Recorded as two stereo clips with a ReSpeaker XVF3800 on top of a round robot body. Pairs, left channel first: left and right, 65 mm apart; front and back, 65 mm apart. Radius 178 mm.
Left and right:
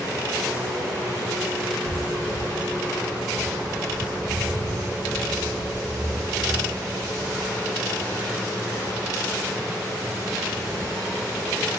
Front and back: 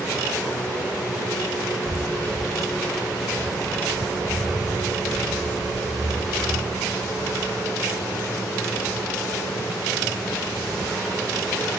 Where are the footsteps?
85° right, 0.5 m; by 8.3 s 95° right, 10.5 m.